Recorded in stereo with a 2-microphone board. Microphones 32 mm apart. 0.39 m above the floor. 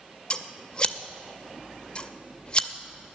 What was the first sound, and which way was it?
Scissors, 30° left (ahead or behind).